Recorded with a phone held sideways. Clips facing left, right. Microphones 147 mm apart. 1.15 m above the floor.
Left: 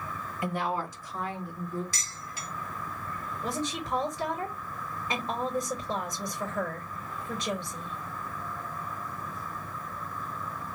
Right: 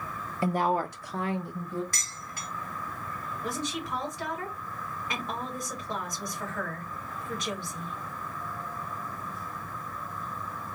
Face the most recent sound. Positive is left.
turn(degrees=20)  # may be behind; listen again after turning